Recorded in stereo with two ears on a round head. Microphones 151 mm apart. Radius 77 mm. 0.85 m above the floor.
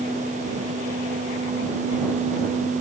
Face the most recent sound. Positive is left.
No sound to turn to.